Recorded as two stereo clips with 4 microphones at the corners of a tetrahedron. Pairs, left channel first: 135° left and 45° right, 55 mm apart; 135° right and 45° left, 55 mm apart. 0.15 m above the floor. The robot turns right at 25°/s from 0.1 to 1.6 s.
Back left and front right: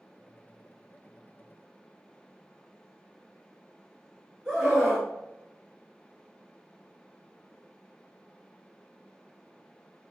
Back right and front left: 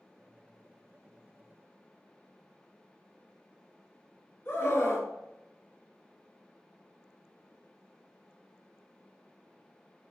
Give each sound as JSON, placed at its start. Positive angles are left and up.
{"t": 4.5, "sound": "a scream", "azimuth_deg": -145, "distance_m": 1.7}